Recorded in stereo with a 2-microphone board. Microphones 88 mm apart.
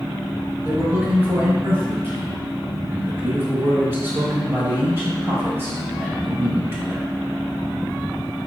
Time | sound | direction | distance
0.6 | a man speaking | 25° right (ahead or behind) | 1.1 m